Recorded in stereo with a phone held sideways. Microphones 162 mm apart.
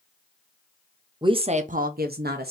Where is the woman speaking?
25° right (ahead or behind), 0.8 m; by 2.5 s 75° right (ahead or behind), 1.0 m.